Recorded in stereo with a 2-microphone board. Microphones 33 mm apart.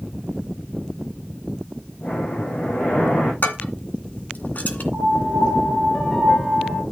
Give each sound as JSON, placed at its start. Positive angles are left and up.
{"t": 2.0, "sound": "breathing", "side_deg": 80, "distance_m": 3.0}
{"t": 3.4, "sound": "dishes clattering", "side_deg": 60, "distance_m": 2.5}
{"t": 4.9, "sound": "a piano", "side_deg": 10, "distance_m": 1.3}